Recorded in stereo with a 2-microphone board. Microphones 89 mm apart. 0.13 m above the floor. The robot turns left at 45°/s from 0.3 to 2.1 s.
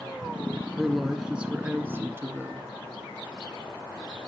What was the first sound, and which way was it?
A woman speaking, 5° left.